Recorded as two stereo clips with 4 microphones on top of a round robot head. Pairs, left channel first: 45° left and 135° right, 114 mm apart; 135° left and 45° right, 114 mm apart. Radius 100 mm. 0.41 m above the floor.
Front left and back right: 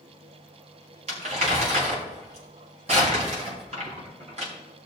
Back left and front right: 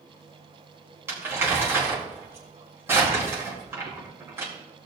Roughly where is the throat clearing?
No throat clearing in this recording.